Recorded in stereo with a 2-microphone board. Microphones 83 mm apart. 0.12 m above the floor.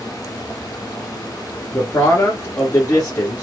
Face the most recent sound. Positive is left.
turn(degrees=40)  # may be behind; listen again after turning